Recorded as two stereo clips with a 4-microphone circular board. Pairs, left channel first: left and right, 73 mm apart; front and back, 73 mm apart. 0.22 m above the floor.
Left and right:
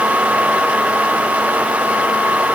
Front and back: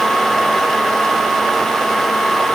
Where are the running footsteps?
No running footsteps in this recording.